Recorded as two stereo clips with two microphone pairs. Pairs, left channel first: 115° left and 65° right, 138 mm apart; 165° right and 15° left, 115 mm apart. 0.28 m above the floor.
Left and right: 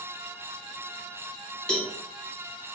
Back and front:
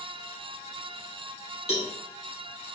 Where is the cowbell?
160° right, 1.2 m.